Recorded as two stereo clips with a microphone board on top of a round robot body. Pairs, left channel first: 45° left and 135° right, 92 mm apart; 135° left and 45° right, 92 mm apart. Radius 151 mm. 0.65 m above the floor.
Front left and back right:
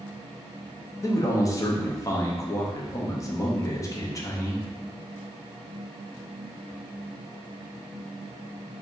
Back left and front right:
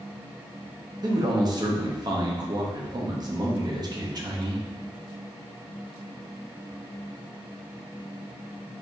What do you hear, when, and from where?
1.0 s a man speaking: 5° right, 0.9 m